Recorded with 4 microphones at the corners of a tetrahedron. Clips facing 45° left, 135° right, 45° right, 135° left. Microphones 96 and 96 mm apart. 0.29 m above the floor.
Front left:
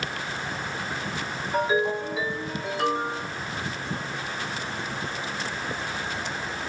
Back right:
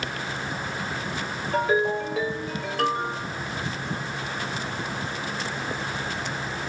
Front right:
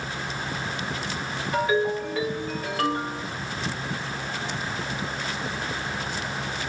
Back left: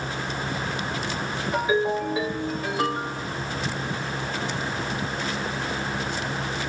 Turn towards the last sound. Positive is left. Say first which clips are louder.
# back right 1 dB, even
turn(degrees=-150)